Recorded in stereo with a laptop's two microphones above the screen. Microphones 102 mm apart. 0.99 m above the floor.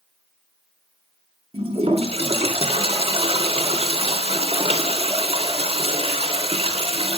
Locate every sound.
1.5 s a toilet flushing: 75° right (ahead or behind), 3 m